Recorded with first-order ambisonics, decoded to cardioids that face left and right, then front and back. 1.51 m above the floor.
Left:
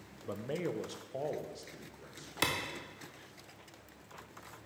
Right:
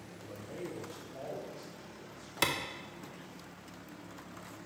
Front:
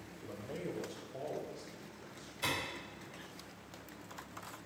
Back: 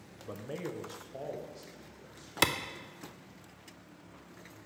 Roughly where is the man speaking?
Behind left.